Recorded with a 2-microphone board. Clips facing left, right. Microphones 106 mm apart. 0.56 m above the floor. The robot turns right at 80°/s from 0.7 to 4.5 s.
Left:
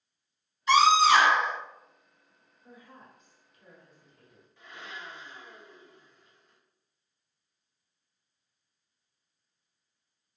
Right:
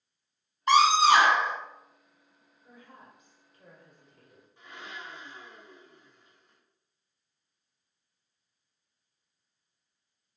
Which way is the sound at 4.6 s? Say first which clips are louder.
Even; 25° right (ahead or behind).